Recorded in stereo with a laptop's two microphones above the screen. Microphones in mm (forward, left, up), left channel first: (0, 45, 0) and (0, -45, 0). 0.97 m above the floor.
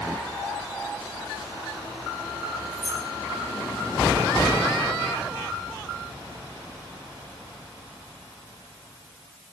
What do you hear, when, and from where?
2.7 s keys jangling: 30° left (ahead or behind), 2.5 m